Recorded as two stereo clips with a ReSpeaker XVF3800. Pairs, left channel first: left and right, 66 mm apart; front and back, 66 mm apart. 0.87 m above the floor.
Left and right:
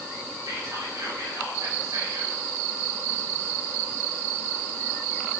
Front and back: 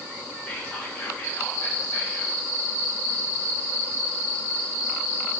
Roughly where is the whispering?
Ahead right.